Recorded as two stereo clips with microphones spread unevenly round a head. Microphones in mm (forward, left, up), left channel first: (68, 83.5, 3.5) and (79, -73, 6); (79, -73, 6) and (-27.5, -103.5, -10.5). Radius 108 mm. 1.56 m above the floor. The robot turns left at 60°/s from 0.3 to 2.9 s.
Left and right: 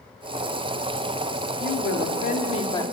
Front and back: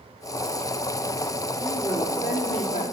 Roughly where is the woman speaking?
Left.